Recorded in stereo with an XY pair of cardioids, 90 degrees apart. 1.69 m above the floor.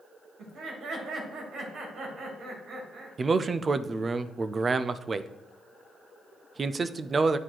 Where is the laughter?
70° right, 3 m.